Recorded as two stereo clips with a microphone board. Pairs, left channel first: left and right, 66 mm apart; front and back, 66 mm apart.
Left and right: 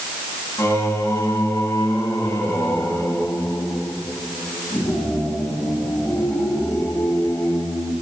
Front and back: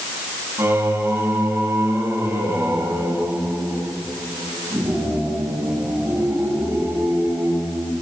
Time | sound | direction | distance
0.6 | singing | 135° left | 8.5 m